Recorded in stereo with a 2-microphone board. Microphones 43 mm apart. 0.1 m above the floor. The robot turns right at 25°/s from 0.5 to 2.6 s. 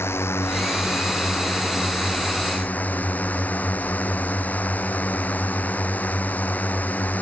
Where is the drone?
85° left; by 7.2 s 140° left.